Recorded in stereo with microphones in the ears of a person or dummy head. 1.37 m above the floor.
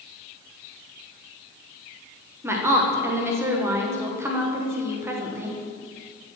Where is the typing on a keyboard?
I don't hear typing on a keyboard.